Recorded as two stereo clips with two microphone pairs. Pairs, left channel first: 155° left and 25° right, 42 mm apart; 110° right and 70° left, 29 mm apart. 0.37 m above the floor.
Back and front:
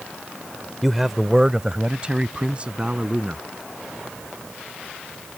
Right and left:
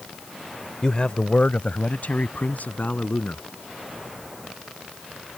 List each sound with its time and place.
0.8 s a man speaking: 120° right; by 3.5 s 85° right